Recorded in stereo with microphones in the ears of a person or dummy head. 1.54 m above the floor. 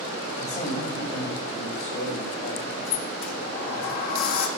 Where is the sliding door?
50° left (ahead or behind), 1.7 m.